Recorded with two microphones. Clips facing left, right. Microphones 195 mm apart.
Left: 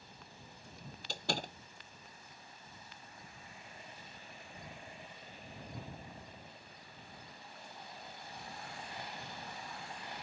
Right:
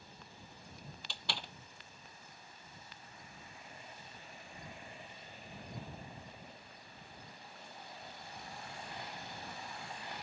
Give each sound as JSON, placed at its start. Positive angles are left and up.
{"t": 1.1, "sound": "a door slam", "side_deg": 45}